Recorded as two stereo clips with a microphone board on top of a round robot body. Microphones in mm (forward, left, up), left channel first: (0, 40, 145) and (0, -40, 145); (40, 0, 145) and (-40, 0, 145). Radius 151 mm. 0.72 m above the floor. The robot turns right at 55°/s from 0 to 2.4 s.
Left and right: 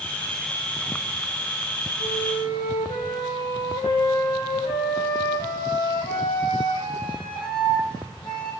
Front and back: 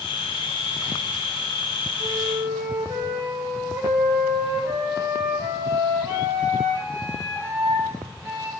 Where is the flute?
100° left, 7 m; by 8.5 s 120° left, 7 m.